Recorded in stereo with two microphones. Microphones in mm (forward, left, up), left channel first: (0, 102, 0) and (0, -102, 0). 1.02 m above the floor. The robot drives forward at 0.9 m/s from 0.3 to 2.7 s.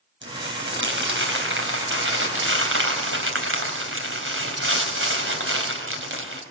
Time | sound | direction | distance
0.2 | crumpling | 65° right (ahead or behind) | 5 m